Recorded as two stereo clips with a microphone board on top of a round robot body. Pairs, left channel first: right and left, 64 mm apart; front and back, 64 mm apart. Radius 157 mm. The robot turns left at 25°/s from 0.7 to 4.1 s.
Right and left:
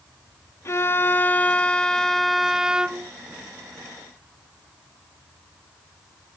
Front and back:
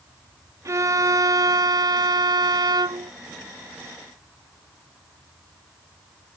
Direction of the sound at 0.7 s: 140° right.